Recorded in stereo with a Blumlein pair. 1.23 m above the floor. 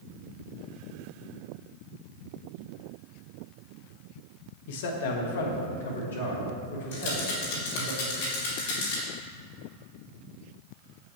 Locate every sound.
4.7 s a man speaking: 55° left, 1.0 m; by 7.9 s 80° left, 3 m
6.9 s a rattle: 55° left, 2 m